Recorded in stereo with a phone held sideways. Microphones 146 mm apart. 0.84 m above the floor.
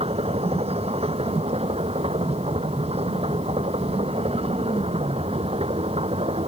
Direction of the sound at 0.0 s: 45° right (ahead or behind).